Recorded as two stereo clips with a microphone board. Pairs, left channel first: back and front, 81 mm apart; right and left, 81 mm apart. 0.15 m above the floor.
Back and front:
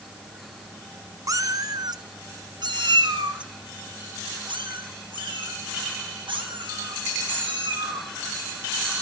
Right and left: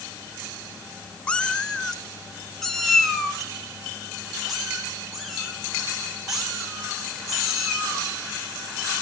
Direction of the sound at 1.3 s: 20° right.